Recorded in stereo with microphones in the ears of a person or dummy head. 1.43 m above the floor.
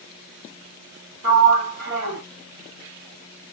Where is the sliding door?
50° right (ahead or behind), 1.6 m.